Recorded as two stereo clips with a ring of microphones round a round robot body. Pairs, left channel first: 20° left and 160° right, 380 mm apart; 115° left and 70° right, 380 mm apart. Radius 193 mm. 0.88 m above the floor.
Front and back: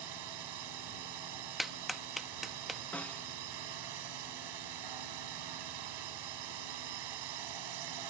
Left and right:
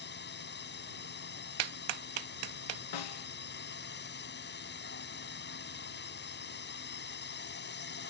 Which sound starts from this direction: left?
A snare drum, at 2.9 s.